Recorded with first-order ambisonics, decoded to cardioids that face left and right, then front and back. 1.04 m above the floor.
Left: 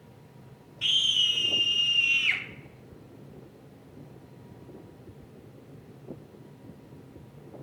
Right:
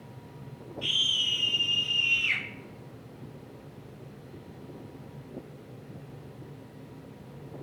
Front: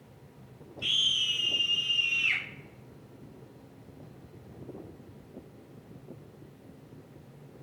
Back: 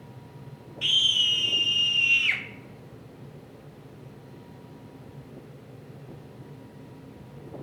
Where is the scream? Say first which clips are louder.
Left 3 dB, back 5 dB; 150° left, 2.5 m.